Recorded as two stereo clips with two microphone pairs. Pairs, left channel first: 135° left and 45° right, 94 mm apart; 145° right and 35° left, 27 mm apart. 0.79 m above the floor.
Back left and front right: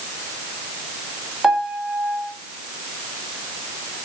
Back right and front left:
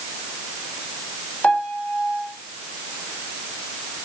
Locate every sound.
1.4 s a piano: 130° right, 3.5 m